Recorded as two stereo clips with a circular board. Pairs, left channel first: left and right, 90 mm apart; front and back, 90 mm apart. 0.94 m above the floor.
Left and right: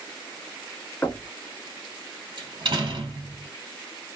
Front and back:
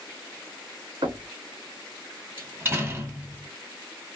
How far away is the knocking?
About 1.1 m.